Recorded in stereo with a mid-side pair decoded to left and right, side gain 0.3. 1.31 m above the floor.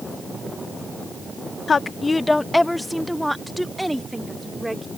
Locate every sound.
1.7 s a woman speaking: 55° left; by 4.9 s 15° right